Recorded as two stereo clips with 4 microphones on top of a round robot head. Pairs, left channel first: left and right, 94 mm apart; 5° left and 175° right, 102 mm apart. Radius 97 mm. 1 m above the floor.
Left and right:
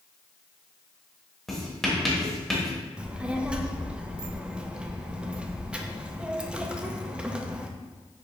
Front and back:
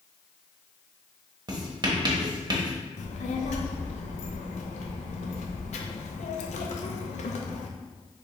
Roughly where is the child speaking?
Ahead.